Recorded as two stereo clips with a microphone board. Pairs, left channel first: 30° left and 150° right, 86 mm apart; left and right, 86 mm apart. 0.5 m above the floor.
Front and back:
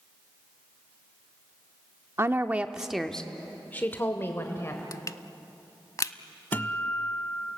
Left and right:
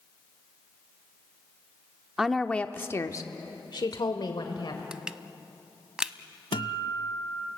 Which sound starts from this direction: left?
A guitar, at 6.5 s.